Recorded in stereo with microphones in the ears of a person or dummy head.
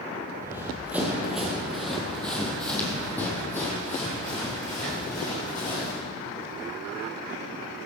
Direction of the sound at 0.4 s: 15° right (ahead or behind).